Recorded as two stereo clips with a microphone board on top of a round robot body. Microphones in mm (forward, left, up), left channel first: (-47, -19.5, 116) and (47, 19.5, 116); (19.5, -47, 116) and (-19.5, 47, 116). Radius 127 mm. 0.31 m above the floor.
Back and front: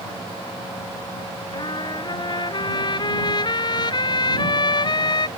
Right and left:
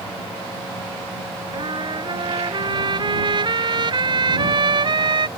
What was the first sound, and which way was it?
A trumpet, 155° left.